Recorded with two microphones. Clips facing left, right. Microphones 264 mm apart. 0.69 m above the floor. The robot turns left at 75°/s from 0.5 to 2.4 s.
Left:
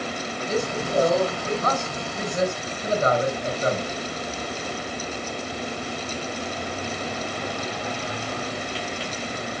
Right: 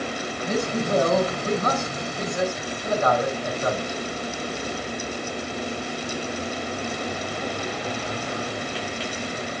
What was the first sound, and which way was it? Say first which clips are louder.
A man speaking: right 2 dB; 60° right.